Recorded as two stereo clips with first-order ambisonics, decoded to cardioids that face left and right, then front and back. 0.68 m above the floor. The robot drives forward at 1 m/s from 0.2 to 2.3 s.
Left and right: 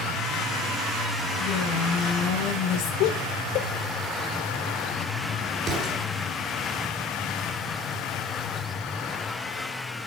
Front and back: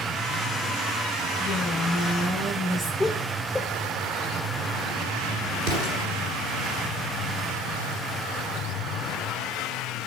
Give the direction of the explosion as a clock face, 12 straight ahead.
5 o'clock.